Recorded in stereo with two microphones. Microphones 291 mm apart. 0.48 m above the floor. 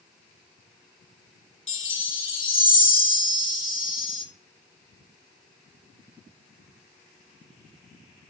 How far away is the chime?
About 0.6 m.